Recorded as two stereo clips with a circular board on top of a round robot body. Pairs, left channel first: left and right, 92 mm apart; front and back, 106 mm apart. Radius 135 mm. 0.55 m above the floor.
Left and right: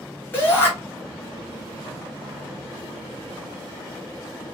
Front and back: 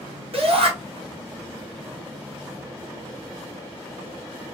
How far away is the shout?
About 2.5 m.